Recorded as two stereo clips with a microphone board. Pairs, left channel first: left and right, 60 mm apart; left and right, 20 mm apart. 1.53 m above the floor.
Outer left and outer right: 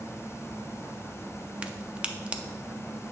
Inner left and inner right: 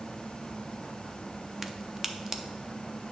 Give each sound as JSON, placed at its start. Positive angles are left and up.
{"t": 1.6, "sound": "a crack", "side_deg": -20, "distance_m": 0.5}